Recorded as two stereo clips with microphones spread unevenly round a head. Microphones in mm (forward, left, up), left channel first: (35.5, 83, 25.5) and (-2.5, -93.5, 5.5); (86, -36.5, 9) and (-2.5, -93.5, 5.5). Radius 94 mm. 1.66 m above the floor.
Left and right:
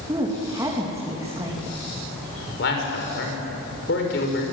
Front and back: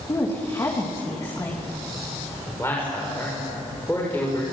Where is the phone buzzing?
I don't hear a phone buzzing.